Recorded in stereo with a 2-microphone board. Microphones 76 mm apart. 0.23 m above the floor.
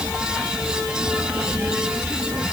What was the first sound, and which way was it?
Only background noise.